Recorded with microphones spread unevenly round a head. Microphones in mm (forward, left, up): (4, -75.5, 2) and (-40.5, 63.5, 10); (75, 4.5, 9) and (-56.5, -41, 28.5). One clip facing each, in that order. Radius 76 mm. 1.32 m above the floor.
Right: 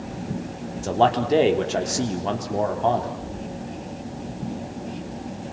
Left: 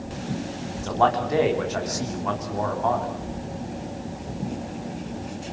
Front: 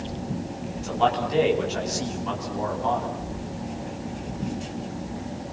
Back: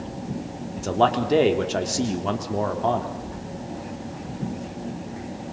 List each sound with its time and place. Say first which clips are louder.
0.8 s a man speaking: right 2 dB, back 3 dB; 130° right, 3.5 m